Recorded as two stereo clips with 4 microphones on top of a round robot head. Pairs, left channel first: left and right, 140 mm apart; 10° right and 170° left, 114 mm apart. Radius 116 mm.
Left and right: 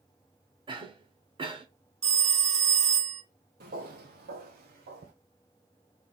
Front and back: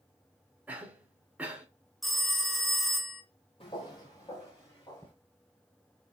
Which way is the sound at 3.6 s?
70° right.